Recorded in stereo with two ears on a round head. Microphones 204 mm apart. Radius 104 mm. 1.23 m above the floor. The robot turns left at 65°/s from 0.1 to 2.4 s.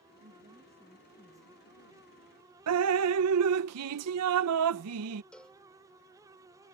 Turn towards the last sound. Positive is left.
turn(degrees=5)  # may be behind; listen again after turning